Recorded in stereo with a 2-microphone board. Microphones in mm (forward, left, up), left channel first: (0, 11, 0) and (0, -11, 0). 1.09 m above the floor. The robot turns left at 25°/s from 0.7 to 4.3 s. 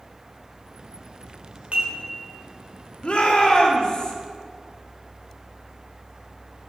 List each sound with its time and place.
1.7 s dishes clattering: 85° right, 3 m
3.0 s a shout: 55° left (ahead or behind), 2 m; by 4.1 s 30° left (ahead or behind), 2 m